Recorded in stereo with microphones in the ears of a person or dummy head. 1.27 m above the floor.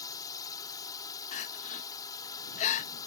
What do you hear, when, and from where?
0.0 s a drone: 20° left (ahead or behind)
1.3 s crying: 40° left (ahead or behind)